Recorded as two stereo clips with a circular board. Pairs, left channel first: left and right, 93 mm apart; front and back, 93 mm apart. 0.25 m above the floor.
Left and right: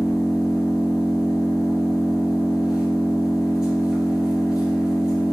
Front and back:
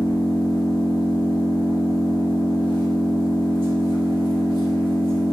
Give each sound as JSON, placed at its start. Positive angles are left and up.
{"t": 0.0, "sound": "an engine running", "azimuth_deg": -175, "distance_m": 2.5}